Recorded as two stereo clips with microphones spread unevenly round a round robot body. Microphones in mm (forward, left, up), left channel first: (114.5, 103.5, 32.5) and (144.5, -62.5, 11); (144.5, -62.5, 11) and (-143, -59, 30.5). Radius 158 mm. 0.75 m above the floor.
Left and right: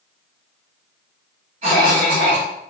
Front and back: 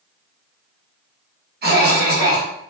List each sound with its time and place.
1.6 s a cough: 125° right, 0.9 m